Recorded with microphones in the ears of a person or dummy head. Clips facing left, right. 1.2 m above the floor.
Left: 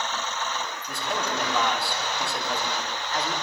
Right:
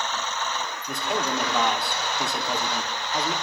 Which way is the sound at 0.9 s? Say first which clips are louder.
Right 3 dB; 25° right (ahead or behind).